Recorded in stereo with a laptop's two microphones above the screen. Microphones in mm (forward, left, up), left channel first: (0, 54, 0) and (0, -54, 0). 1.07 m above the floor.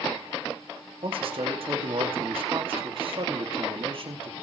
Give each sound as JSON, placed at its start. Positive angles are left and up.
{"t": 1.0, "sound": "a man speaking", "side_deg": -55, "distance_m": 2.0}